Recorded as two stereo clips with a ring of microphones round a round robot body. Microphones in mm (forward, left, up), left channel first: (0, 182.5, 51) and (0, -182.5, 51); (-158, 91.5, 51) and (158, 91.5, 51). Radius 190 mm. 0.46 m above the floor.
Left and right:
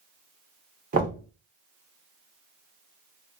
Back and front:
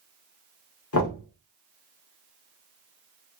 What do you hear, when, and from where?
0.9 s knocking: 150° right, 1.2 m